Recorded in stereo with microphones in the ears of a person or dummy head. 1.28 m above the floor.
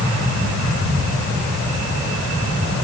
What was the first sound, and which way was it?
Only background noise.